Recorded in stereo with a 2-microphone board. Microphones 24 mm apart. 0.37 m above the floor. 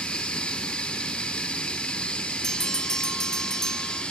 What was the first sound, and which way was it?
Running water, 40° left (ahead or behind).